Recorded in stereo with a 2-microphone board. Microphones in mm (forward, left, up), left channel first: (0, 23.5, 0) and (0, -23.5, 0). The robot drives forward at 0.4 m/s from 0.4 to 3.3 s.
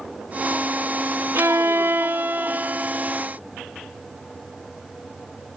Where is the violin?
70° right (ahead or behind); by 3.2 s 30° right (ahead or behind).